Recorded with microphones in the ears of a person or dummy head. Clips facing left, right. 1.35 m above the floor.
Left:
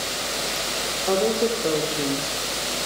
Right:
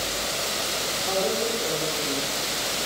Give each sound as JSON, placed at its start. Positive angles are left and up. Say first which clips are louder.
{"t": 1.1, "sound": "a woman speaking", "louder": "left 5 dB", "side_deg": 60, "distance_m": 3.5}